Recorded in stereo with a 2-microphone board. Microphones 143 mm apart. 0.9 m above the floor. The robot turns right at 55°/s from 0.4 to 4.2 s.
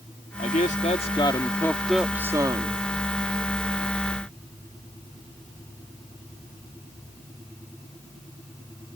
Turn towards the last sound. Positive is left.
turn(degrees=-55)